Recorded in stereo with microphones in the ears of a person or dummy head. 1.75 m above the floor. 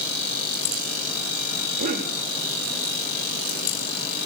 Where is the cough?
50° right (ahead or behind), 4 m.